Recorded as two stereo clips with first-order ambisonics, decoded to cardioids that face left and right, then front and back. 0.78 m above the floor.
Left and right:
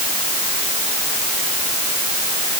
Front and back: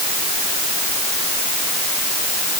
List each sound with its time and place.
Only background noise.